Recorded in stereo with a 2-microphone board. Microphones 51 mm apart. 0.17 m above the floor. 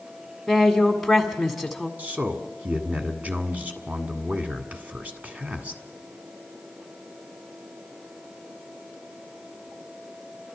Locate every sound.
0.5 s a woman speaking: centre (ahead or behind), 1.6 m
2.0 s a man speaking: 30° right (ahead or behind), 1.6 m